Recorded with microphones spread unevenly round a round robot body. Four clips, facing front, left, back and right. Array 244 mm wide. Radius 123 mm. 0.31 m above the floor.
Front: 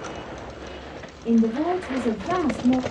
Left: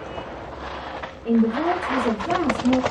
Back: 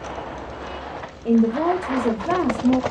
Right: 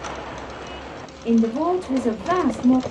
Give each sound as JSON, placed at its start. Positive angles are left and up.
{"t": 1.2, "sound": "a woman speaking", "azimuth_deg": -75, "distance_m": 0.9}